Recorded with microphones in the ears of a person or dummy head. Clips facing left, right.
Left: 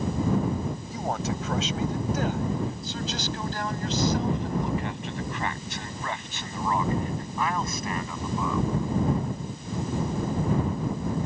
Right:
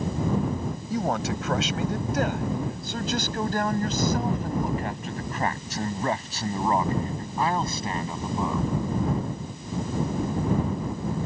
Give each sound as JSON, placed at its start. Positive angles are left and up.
{"t": 0.9, "sound": "a man speaking", "side_deg": -55}